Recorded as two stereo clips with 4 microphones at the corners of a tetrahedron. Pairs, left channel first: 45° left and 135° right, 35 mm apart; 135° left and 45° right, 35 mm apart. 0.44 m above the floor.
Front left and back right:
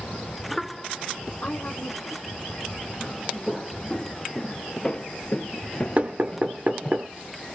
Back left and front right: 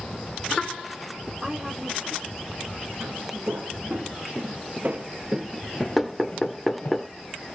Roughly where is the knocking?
Behind right.